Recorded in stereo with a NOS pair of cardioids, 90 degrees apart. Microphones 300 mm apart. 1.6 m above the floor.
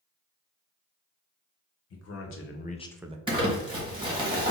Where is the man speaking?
55° left, 1.6 m; by 3.2 s 30° right, 0.5 m.